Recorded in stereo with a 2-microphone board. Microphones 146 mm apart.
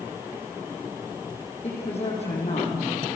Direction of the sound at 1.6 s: 45° left (ahead or behind).